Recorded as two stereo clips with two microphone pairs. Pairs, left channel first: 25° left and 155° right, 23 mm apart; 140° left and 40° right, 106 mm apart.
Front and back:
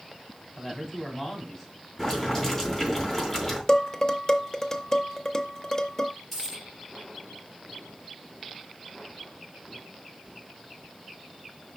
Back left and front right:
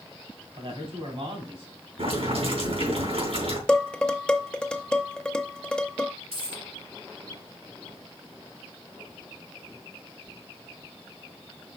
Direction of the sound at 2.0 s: 50° right.